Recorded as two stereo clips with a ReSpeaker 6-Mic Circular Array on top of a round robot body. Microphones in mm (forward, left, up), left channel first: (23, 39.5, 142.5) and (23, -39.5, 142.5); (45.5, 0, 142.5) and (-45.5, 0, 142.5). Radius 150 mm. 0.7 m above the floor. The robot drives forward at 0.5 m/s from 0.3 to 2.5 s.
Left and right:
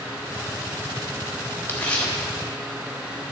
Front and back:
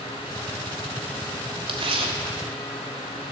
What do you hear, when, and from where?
1.7 s tearing paper: 160° left, 1.3 m